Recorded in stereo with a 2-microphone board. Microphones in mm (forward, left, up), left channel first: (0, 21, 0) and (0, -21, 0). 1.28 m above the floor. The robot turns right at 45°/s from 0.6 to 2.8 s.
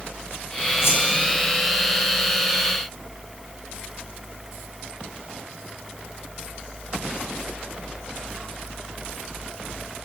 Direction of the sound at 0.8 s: 85° left.